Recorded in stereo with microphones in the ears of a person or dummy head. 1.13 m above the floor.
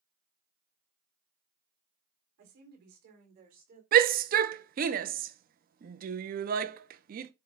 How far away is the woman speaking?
About 3.5 m.